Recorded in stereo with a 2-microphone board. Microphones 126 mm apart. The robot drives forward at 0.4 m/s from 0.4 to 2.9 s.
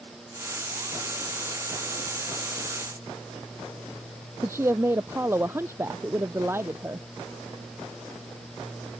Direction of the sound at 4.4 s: 20° right (ahead or behind).